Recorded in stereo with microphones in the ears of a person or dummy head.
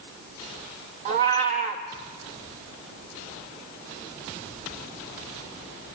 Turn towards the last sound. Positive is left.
turn(degrees=-45)  # may be behind; listen again after turning